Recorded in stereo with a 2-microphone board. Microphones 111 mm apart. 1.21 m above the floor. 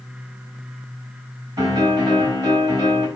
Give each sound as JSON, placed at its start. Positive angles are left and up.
{"t": 1.6, "sound": "a piano", "side_deg": -35, "distance_m": 3.0}